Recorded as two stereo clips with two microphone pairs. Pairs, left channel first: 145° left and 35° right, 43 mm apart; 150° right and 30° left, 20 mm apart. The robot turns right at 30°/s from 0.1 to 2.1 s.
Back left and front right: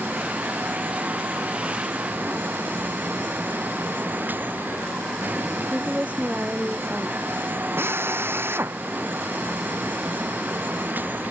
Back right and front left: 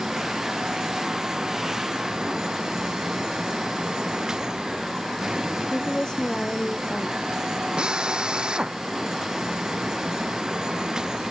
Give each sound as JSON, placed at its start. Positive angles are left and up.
{"t": 5.6, "sound": "a woman speaking", "azimuth_deg": -95}
{"t": 7.8, "sound": "a drill", "azimuth_deg": -5}